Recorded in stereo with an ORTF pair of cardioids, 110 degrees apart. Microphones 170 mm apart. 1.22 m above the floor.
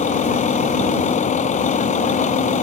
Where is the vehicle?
45° left.